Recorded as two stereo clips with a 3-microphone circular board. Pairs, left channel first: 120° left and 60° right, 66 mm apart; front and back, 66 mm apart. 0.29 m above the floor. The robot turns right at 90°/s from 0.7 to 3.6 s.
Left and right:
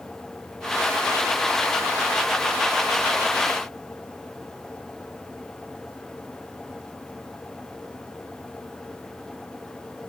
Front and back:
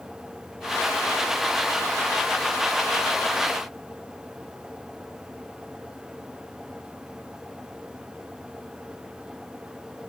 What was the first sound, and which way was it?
Only background noise.